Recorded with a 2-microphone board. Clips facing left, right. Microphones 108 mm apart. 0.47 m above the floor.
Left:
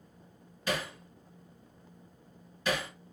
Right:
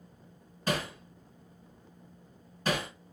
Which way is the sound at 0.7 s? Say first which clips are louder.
Right 2 dB; 40° right (ahead or behind).